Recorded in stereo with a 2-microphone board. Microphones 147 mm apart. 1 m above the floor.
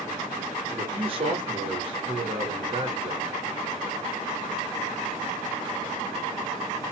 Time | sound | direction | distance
0.7 | a man speaking | 40° right (ahead or behind) | 1.0 m